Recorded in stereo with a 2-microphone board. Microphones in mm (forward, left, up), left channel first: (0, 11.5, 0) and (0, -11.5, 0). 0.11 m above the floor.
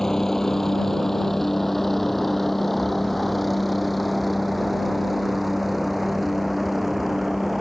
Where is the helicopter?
20° left (ahead or behind); by 7.6 s 5° right (ahead or behind).